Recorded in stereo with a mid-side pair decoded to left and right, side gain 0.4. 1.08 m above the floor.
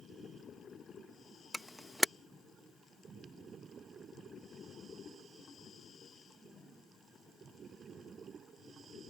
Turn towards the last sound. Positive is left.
turn(degrees=-10)